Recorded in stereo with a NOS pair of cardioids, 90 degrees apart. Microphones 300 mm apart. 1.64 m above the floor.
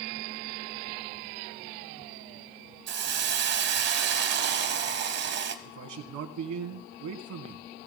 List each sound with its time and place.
2.9 s a hiss: 55° right, 1.0 m
5.7 s a man speaking: 70° right, 1.7 m